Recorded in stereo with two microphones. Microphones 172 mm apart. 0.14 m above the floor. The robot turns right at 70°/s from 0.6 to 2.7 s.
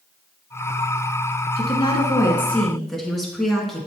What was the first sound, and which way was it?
A woman speaking, 100° left.